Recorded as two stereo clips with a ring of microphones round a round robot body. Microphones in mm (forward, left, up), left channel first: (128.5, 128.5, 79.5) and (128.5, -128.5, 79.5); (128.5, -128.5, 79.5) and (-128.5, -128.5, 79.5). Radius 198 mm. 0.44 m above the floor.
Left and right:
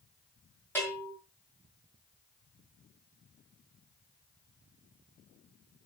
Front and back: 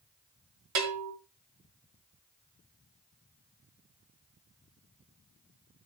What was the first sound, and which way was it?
A bell, 175° left.